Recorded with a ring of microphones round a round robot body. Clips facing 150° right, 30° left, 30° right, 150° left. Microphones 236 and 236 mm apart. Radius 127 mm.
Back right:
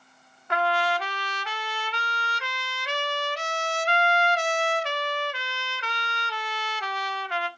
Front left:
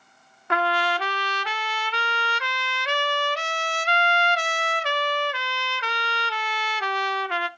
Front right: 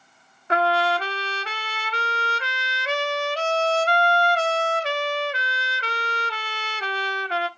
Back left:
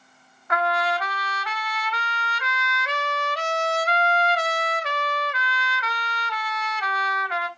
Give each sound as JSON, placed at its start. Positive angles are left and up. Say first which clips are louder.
{"t": 0.5, "sound": "a trumpet", "louder": "front left 1 dB, front right 3 dB", "azimuth_deg": 25, "distance_m": 0.7}